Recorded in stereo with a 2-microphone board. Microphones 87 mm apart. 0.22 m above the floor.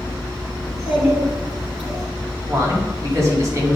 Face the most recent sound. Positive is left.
turn(degrees=-35)  # may be behind; listen again after turning